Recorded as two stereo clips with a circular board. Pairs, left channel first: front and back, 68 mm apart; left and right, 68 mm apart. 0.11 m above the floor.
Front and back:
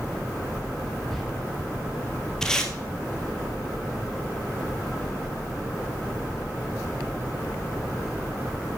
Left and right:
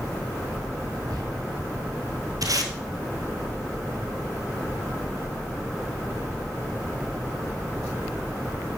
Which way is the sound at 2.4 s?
80° right.